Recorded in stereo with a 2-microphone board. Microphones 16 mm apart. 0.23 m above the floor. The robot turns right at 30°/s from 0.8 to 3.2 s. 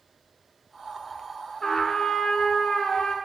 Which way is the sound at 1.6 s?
40° left.